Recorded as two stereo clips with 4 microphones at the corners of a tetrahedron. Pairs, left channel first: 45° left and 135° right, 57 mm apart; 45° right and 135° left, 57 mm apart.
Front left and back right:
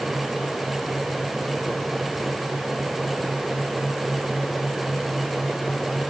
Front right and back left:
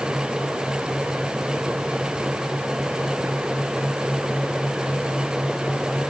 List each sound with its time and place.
Only background noise.